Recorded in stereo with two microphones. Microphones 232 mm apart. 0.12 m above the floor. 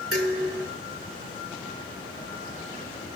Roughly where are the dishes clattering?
Right.